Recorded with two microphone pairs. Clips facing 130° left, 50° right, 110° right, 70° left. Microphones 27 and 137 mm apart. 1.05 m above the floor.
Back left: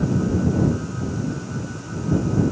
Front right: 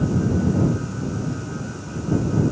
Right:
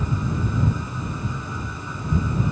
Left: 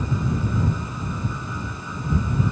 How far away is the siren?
I don't hear a siren.